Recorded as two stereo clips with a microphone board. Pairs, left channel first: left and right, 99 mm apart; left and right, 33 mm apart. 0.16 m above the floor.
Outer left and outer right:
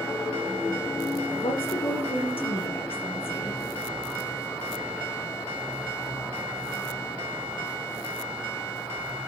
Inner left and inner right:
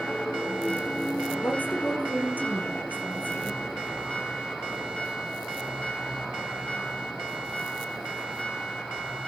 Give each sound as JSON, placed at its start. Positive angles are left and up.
{"t": 1.4, "sound": "a woman speaking", "side_deg": 70, "distance_m": 5.5}